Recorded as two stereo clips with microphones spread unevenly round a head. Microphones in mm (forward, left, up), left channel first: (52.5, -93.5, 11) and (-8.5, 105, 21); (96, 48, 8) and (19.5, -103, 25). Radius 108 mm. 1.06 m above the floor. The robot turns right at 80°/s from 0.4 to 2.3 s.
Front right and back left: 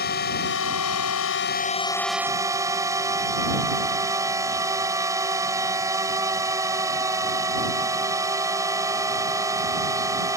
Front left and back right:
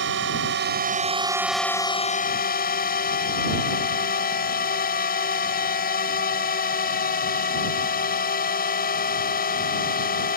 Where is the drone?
120° right; by 10.4 s 30° left.